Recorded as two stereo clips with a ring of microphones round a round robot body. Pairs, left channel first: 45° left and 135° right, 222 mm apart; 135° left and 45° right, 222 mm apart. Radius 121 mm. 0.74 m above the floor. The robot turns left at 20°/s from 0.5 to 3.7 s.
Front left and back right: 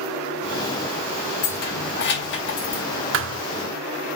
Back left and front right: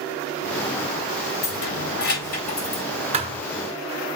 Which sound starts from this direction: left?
Keys jangling, at 1.4 s.